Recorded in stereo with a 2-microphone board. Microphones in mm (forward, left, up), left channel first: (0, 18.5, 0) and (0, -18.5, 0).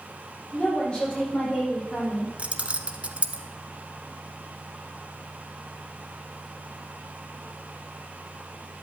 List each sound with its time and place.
0.5 s a woman speaking: 25° left (ahead or behind), 6.5 m; by 2.3 s 15° left (ahead or behind), 8.5 m
2.4 s keys jangling: 35° right (ahead or behind), 1.0 m